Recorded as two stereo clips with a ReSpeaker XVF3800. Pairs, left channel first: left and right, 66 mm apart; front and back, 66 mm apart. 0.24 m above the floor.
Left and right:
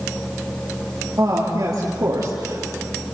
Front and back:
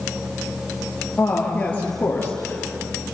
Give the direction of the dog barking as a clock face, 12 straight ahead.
I don't hear a dog barking.